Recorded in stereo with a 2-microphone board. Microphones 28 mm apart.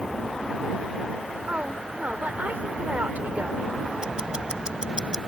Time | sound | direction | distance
1.5 | a woman speaking | 70° right (ahead or behind) | ?
4.0 | ticking | 30° right (ahead or behind) | ?